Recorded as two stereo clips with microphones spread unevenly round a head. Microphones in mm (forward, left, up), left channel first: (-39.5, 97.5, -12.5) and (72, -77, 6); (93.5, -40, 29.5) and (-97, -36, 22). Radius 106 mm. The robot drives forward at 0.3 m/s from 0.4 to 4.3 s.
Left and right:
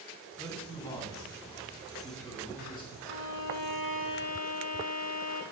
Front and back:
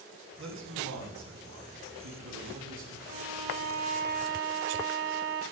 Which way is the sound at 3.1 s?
120° left.